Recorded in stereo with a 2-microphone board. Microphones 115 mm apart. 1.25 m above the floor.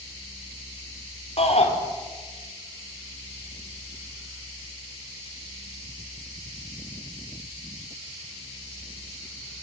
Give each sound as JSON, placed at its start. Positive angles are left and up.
{"t": 1.4, "sound": "a shout", "side_deg": 60, "distance_m": 4.5}